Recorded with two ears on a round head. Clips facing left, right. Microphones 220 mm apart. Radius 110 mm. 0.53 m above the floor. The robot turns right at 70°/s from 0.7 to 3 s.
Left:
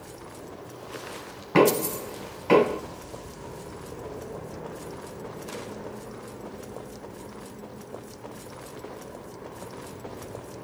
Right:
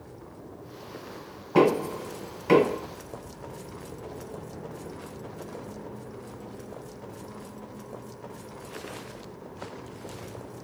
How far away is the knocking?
About 1.8 m.